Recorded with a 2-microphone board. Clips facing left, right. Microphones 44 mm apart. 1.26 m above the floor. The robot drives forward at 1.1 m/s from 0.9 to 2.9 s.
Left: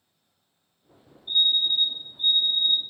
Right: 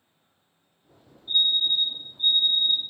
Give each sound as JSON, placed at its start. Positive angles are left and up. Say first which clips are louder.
{"t": 1.3, "sound": "a fire alarm", "louder": "even", "side_deg": 70, "distance_m": 3.5}